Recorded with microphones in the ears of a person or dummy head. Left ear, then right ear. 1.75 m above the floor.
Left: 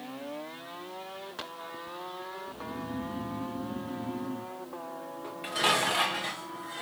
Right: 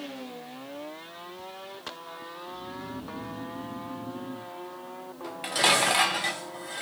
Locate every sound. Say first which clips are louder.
2.5 s snoring: even; 40° left (ahead or behind), 0.9 m
5.2 s dishes clattering: right 4 dB; 20° right (ahead or behind), 1.0 m